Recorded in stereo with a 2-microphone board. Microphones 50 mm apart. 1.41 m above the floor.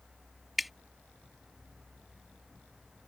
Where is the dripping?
Centre (ahead or behind).